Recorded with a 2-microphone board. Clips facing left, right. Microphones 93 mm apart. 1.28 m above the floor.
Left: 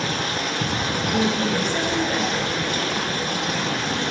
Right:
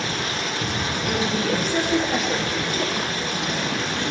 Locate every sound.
0.0 s running water: 50° left (ahead or behind), 2 m
1.1 s a woman speaking: 75° right (ahead or behind), 2.5 m